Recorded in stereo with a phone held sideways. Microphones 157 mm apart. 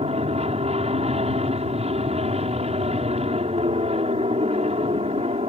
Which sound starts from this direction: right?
An aircraft, at 0.0 s.